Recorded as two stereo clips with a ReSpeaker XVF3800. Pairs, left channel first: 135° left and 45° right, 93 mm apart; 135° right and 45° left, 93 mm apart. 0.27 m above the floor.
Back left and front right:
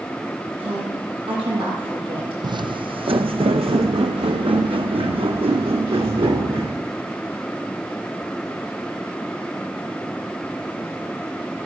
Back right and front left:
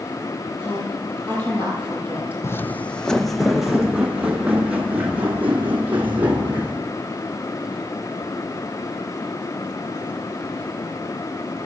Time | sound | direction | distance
0.6 | a woman speaking | 70° right | 8 m
2.4 | footsteps | 80° right | 0.6 m